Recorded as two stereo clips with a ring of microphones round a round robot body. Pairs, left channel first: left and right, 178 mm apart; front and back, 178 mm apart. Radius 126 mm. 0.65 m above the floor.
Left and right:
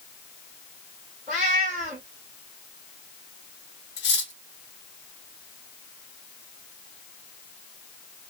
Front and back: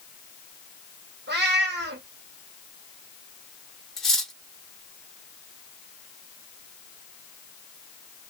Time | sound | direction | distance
1.3 | a cat meowing | straight behind | 1.1 m
4.0 | cutlery clinking | 90° left | 1.0 m